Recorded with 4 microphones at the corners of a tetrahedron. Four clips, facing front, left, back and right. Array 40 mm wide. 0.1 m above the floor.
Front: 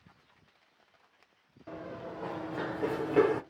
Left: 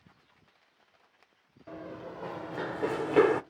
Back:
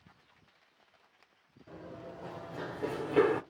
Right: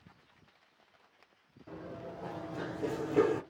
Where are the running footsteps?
30° left, 1.0 m; by 3.4 s 95° left, 0.5 m.